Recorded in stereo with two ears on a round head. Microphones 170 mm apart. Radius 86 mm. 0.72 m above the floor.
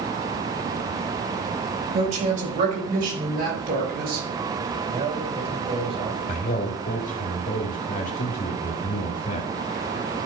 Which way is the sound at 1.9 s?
35° right (ahead or behind).